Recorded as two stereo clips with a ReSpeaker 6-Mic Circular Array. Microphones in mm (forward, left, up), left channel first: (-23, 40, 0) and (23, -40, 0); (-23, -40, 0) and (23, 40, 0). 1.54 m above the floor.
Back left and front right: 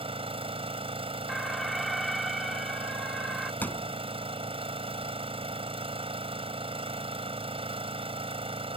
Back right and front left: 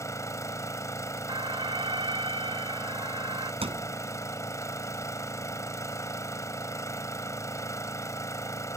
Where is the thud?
50° left.